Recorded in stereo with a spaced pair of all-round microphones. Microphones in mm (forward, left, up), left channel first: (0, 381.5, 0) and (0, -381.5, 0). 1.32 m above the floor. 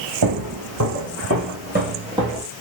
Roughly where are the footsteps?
Right.